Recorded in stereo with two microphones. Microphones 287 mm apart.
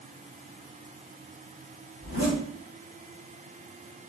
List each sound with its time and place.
2.0 s a zipper: 75° left (ahead or behind), 2.0 m